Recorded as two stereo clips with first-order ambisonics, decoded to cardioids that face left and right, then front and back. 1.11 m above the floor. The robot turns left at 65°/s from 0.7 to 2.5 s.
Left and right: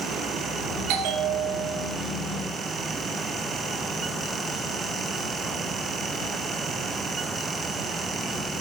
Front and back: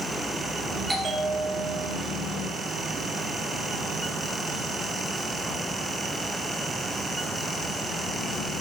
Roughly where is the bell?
Right.